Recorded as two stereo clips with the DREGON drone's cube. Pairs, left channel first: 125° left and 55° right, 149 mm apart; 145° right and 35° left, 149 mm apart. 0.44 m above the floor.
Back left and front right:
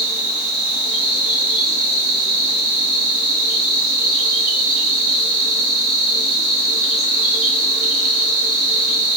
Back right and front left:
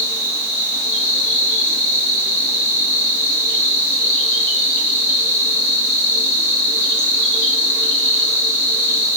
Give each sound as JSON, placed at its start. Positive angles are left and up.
{"t": 0.0, "sound": "an insect", "azimuth_deg": 140, "distance_m": 1.7}